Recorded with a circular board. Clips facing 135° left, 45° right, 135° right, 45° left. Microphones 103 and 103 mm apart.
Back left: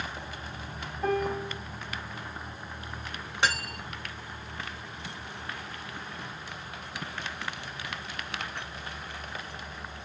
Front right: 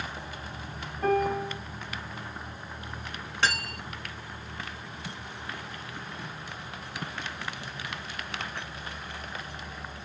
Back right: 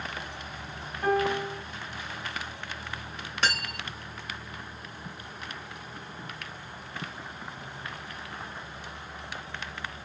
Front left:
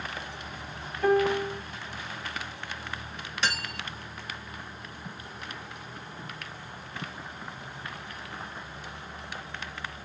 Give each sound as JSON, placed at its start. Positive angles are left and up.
{"t": 1.0, "sound": "a piano", "azimuth_deg": -75, "distance_m": 1.1}
{"t": 3.4, "sound": "cutlery clinking", "azimuth_deg": -155, "distance_m": 1.5}